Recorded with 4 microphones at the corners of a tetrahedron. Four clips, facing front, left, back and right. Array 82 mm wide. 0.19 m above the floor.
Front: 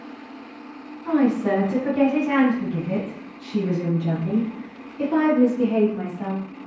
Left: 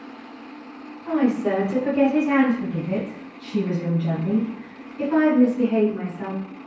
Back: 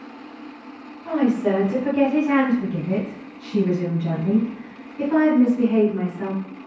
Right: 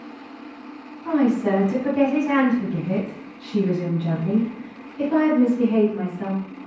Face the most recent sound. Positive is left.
turn(degrees=165)